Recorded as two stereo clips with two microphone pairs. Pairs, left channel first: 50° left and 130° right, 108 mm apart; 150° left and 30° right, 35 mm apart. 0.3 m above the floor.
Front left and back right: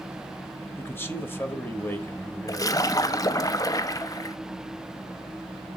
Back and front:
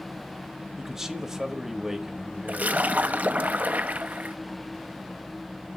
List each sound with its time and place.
0.8 s a man speaking: 25° left, 1.0 m
2.5 s a splash: straight ahead, 0.5 m